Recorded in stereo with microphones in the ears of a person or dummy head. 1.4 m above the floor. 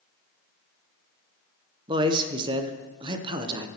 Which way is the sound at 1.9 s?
25° right (ahead or behind).